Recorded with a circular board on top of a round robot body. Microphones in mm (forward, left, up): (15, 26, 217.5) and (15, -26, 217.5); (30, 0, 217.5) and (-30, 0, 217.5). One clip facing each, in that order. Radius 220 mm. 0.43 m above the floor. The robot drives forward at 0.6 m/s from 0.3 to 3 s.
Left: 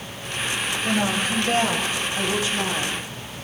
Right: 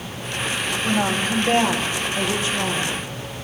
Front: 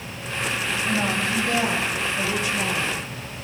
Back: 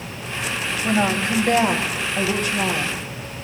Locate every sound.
0.8 s a woman speaking: 130° right, 2.5 m; by 3.0 s 150° right, 3.5 m